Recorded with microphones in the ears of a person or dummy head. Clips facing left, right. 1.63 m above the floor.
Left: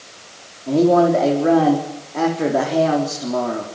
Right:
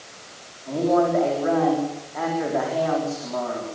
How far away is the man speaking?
About 4.5 m.